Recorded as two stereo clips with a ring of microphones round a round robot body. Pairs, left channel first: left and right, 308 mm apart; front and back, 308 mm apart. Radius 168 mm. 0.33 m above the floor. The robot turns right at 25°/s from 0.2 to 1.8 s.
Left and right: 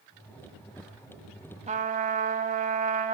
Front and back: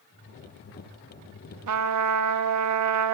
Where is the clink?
I don't hear a clink.